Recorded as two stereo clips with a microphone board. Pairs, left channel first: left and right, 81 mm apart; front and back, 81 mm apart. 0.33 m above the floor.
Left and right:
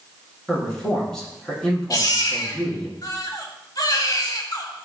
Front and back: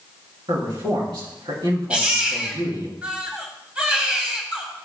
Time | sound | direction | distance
0.5 | a man speaking | 175° left | 4 m
1.9 | a baby crying | 105° left | 1.5 m